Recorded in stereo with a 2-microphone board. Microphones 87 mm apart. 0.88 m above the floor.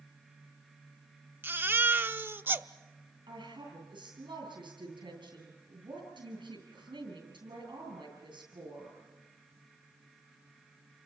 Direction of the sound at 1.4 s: 25° right (ahead or behind).